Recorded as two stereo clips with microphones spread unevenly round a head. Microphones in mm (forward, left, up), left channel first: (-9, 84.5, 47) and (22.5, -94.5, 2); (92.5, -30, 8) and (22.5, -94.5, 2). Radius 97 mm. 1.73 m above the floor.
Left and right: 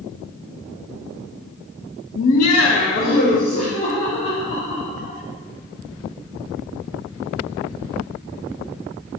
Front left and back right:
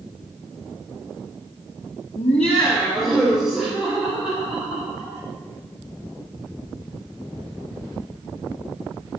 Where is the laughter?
70° left, 0.8 m; by 5.2 s 165° left, 4.5 m.